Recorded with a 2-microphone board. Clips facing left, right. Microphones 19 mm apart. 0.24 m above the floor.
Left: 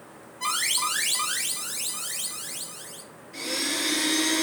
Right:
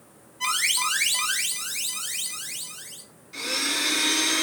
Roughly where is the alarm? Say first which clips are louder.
Right 2 dB; right.